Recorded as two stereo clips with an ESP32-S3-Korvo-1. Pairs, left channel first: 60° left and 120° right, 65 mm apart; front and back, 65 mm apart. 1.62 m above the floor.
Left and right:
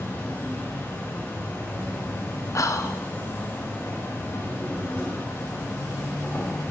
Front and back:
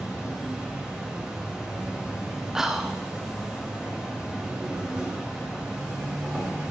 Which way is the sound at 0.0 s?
105° left.